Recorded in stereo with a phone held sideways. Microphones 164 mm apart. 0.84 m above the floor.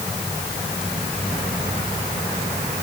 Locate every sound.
Only background noise.